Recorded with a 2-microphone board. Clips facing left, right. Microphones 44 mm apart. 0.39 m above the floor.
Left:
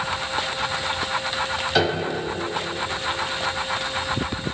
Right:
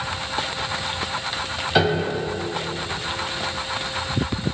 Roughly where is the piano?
Centre.